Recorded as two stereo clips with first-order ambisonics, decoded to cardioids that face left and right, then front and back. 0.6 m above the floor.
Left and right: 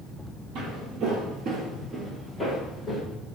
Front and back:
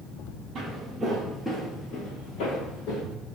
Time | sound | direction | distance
0.6 | footsteps | 120° right | 1.1 m